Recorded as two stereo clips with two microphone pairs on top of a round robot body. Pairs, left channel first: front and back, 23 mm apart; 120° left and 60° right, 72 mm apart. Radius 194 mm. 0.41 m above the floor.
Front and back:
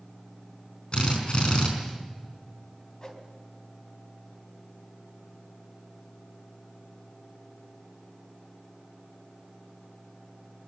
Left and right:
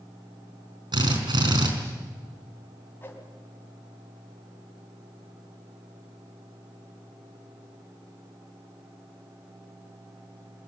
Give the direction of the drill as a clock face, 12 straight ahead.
2 o'clock.